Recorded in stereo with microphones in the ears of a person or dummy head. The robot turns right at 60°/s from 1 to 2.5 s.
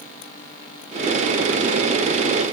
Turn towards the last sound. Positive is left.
No sound to turn to.